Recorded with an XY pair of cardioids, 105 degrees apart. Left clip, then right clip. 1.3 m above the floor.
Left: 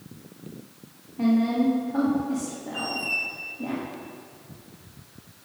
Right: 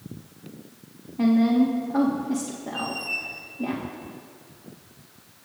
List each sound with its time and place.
1.2 s a woman speaking: 30° right, 2.0 m
2.7 s a squeak: 25° left, 2 m